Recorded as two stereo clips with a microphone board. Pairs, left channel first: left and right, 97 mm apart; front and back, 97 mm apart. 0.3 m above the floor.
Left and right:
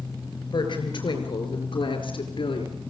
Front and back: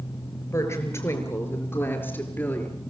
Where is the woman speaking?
55° left, 5.5 m; by 2.8 s 65° left, 4.5 m.